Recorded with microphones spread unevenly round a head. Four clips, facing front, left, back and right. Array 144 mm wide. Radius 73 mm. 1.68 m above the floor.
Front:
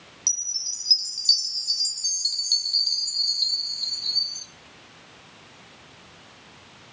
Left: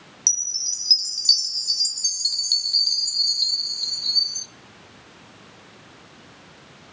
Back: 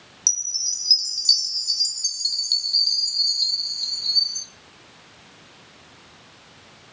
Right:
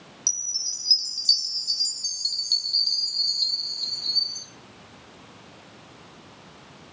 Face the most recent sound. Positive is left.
turn(degrees=115)